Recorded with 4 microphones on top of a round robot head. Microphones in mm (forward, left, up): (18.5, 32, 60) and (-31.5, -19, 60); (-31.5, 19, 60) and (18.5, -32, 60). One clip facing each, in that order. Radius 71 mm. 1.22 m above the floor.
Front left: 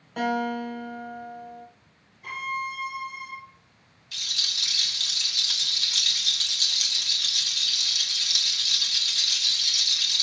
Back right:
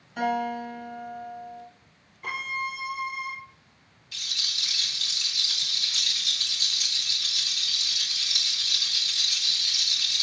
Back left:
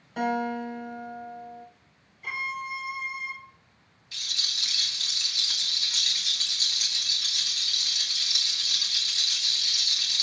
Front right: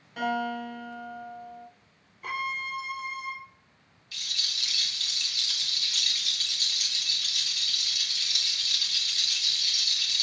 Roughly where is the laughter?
I don't hear laughter.